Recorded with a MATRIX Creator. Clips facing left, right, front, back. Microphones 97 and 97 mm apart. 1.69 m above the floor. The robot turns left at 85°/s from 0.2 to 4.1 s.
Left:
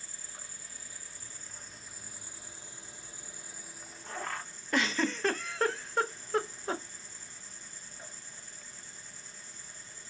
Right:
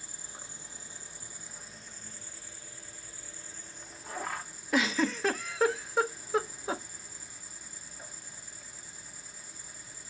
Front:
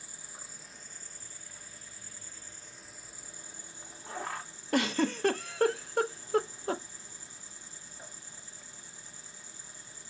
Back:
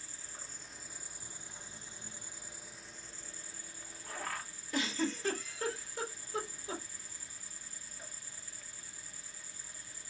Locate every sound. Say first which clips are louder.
0.0 s an insect: right 2 dB, front 1 dB; 45° right, 0.9 m; by 10.1 s 20° right, 0.9 m
4.7 s a giggle: right 2 dB, front 6 dB; 5° right, 0.7 m